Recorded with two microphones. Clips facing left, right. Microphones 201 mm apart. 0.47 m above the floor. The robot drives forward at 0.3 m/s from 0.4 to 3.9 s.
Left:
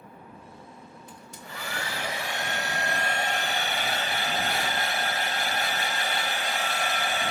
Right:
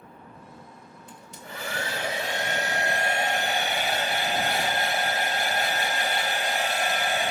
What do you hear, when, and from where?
1.1 s a hair dryer: 25° right (ahead or behind), 2.5 m; by 7.3 s 20° right (ahead or behind), 3 m